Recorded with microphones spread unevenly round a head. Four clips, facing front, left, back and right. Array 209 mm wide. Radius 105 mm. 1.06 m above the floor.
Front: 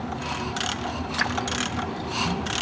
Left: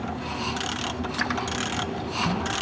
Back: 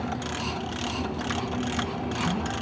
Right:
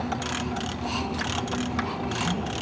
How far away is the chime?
No chime in this recording.